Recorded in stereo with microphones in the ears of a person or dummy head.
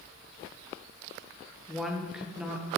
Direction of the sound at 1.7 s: 5° right (ahead or behind).